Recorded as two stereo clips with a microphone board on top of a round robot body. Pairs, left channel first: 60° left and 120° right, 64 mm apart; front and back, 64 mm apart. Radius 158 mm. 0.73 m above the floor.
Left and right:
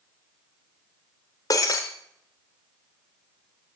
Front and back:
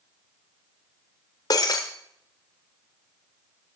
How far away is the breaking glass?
About 0.6 m.